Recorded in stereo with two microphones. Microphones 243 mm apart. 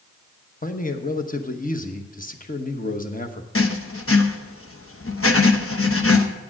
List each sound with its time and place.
0.6 s a man speaking: 35° left (ahead or behind), 1.0 m
3.5 s writing: 65° left (ahead or behind), 0.9 m